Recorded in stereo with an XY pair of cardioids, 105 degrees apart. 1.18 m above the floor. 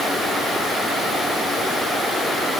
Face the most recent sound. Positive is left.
No sound to turn to.